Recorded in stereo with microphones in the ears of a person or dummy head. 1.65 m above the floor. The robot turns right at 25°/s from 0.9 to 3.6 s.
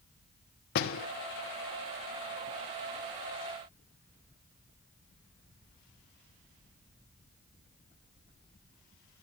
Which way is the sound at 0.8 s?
50° left (ahead or behind).